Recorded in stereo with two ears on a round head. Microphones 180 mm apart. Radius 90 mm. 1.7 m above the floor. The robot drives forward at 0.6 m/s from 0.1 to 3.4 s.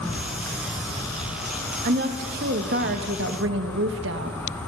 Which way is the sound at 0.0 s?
5° left (ahead or behind).